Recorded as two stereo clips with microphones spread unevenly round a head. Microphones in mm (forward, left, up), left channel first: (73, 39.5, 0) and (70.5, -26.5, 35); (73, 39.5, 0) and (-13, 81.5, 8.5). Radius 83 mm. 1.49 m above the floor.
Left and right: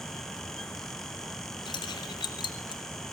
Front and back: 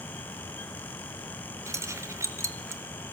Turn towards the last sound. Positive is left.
turn(degrees=95)